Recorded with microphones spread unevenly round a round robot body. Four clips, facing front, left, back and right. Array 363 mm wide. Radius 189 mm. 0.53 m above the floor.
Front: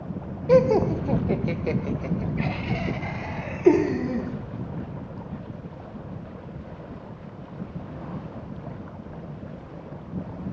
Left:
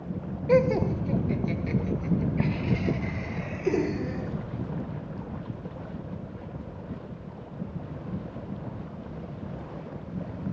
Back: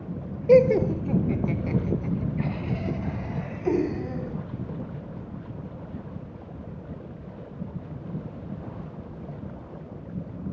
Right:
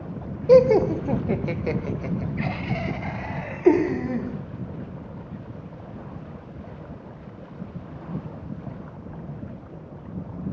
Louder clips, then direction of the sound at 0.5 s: Right 8 dB, back 1 dB; 105° right.